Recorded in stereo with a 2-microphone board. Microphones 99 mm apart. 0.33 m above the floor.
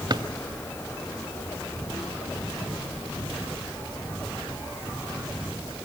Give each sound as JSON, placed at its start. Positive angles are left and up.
{"t": 0.1, "sound": "a drawer", "side_deg": -50, "distance_m": 0.6}